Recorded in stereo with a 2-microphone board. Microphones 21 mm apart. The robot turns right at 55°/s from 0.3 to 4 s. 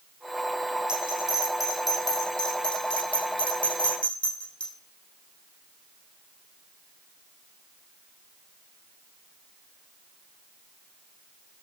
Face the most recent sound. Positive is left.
turn(degrees=70)  # may be behind; listen again after turning